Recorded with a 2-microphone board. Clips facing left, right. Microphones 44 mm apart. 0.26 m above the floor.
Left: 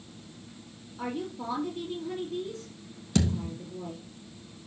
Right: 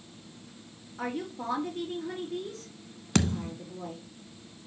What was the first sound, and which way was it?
A woman speaking, 55° right (ahead or behind).